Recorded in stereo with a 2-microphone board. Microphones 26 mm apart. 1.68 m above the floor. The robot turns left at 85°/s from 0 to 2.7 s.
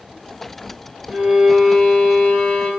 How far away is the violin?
About 1.3 m.